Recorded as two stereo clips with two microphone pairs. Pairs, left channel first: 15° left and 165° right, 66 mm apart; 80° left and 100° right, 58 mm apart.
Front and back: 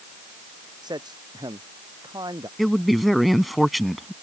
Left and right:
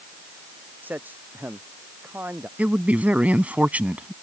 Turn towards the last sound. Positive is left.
turn(degrees=-75)